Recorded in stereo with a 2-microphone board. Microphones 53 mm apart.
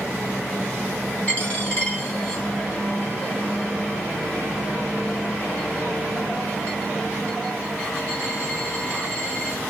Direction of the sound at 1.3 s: 30° left (ahead or behind).